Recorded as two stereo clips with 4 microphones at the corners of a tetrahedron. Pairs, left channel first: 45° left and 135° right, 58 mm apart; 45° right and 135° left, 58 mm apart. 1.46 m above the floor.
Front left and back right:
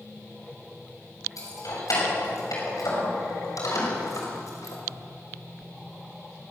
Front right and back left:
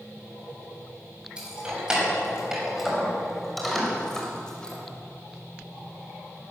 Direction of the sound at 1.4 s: 60° left.